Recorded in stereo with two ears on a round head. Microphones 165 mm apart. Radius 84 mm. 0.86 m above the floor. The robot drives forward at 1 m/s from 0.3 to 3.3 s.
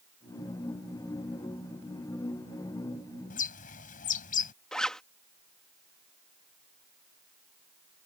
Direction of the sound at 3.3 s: 45° left (ahead or behind).